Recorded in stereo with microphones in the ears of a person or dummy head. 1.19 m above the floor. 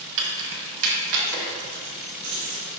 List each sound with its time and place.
0.2 s keys jangling: 60° right (ahead or behind), 1.3 m; by 2.7 s 55° right (ahead or behind), 2.5 m